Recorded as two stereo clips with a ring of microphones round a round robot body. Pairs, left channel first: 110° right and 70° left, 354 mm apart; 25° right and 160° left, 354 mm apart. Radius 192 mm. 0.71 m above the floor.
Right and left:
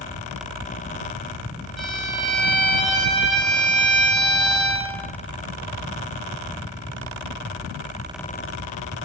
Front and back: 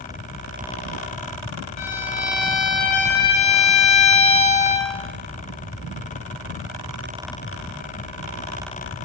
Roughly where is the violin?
Ahead.